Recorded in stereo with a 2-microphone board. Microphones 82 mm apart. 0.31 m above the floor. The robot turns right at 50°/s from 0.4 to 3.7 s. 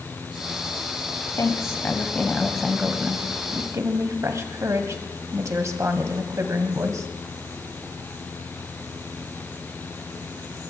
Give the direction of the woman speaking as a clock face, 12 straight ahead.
8 o'clock.